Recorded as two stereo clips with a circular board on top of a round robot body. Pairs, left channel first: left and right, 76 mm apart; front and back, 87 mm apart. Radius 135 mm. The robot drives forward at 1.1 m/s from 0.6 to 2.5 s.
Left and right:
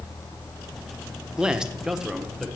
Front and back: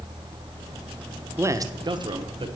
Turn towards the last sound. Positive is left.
turn(degrees=-175)